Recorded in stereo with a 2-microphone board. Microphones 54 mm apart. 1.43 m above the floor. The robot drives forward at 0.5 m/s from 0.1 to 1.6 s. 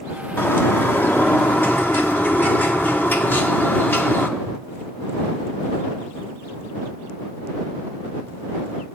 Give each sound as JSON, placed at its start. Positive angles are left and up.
{"t": 0.4, "sound": "a bird", "side_deg": 45, "distance_m": 1.2}